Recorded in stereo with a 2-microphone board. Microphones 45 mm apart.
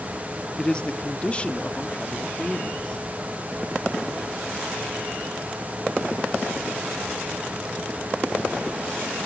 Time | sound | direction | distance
0.6 | a man speaking | 20° left (ahead or behind) | 0.6 m